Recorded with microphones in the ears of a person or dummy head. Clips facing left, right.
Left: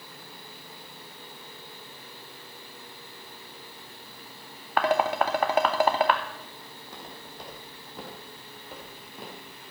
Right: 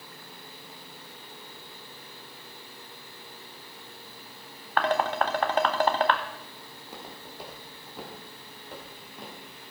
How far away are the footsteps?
About 3.5 m.